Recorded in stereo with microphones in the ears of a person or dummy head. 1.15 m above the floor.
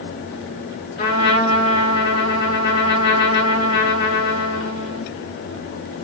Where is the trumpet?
30° left (ahead or behind), 3.5 m.